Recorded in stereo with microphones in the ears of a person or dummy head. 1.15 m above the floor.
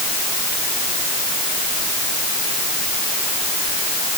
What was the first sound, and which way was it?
Only background noise.